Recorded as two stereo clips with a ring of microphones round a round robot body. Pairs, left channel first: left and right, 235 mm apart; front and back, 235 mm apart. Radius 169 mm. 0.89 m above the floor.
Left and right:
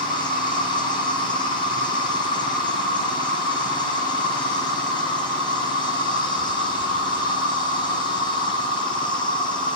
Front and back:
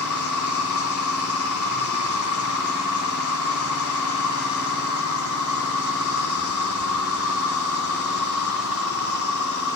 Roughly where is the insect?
Ahead.